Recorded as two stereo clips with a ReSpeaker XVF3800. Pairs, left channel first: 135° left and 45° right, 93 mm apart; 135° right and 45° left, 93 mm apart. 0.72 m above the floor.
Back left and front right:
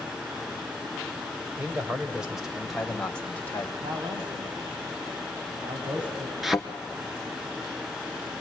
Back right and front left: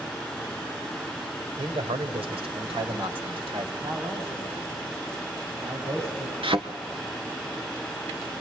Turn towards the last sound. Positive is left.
turn(degrees=45)